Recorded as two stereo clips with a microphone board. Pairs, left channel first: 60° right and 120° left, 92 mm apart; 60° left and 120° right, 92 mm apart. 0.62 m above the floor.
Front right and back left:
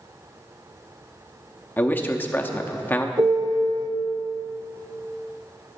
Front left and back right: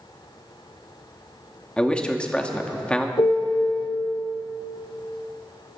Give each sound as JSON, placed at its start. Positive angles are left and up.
{"t": 1.8, "sound": "a man speaking", "azimuth_deg": -10, "distance_m": 0.7}
{"t": 3.2, "sound": "a piano", "azimuth_deg": 80, "distance_m": 0.9}